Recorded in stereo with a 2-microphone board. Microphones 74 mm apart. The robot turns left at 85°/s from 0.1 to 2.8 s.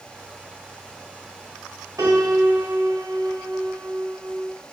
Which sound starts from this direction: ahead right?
A piano, at 2.0 s.